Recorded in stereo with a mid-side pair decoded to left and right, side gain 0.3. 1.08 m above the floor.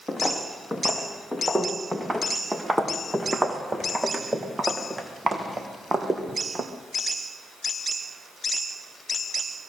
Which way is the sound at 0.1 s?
5° right.